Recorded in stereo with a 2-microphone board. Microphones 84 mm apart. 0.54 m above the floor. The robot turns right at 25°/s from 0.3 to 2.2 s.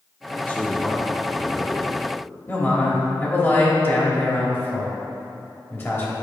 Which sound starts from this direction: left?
A man speaking, at 2.5 s.